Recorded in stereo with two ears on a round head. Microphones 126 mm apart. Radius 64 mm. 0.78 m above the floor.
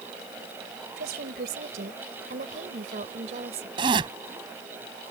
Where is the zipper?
35° right (ahead or behind).